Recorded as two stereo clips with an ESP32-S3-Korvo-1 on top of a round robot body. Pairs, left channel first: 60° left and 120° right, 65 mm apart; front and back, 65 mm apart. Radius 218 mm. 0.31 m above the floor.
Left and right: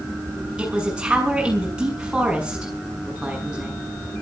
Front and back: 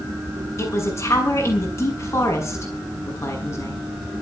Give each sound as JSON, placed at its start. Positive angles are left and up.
{"t": 0.6, "sound": "a man speaking", "azimuth_deg": -45, "distance_m": 7.0}